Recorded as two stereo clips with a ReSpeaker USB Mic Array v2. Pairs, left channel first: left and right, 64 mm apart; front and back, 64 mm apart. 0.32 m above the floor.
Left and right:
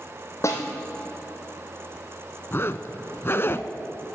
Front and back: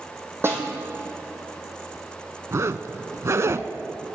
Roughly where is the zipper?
Behind left.